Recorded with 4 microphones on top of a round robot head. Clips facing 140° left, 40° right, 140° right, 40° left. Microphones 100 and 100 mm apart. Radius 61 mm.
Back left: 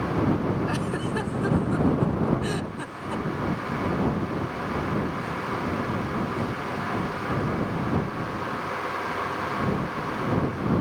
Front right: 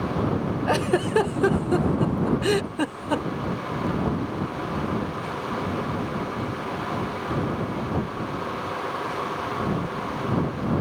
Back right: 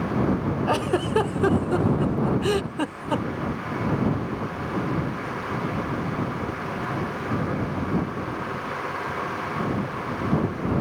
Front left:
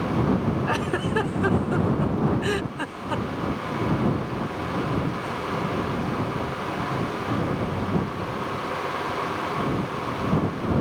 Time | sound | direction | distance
0.7 | a giggle | 75° right | ?